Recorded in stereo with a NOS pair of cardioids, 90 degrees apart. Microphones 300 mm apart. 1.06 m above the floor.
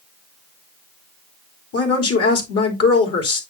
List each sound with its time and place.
1.7 s a woman speaking: 50° left, 3.5 m